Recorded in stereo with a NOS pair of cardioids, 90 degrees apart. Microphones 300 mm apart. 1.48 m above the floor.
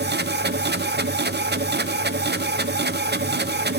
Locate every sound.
0.0 s a machine running: 35° right, 0.7 m